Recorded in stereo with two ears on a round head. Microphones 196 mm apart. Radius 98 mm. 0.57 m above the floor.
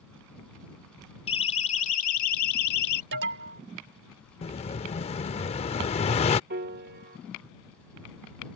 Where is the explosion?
30° left (ahead or behind).